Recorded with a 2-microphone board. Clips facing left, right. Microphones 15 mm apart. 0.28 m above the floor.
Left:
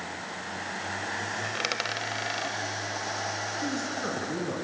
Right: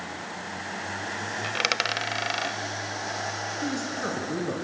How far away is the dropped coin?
About 0.6 m.